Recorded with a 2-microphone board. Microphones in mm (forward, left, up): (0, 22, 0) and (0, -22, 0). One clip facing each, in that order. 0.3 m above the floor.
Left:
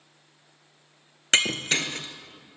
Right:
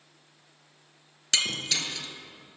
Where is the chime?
I don't hear a chime.